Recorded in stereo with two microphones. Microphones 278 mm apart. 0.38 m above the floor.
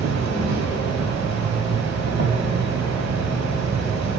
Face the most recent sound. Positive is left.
turn(degrees=-65)  # may be behind; listen again after turning